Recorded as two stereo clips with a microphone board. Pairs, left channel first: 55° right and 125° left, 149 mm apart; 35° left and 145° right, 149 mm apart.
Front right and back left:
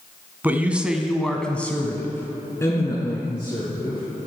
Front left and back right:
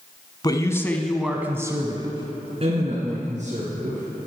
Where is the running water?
I don't hear running water.